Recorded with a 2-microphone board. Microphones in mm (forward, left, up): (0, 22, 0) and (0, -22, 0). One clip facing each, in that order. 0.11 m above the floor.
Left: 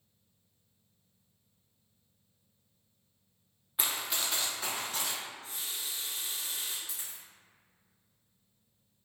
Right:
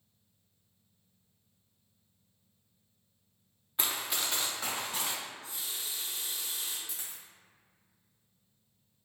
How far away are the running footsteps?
About 0.6 m.